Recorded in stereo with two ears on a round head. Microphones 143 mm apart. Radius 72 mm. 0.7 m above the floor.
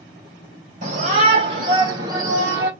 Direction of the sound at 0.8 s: 45° right (ahead or behind).